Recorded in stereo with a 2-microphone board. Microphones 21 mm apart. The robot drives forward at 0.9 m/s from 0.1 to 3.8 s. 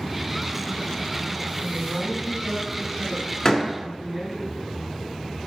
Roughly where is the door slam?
Left.